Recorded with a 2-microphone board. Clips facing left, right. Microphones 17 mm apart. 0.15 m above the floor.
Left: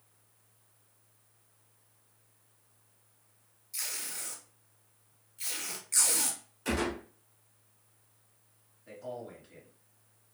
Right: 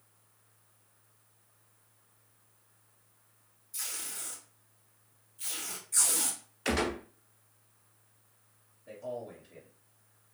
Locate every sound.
3.7 s tape being pulled: 55° left (ahead or behind), 1.9 m
6.7 s a gunshot: 40° right (ahead or behind), 0.8 m
8.9 s a man speaking: 45° left (ahead or behind), 1.8 m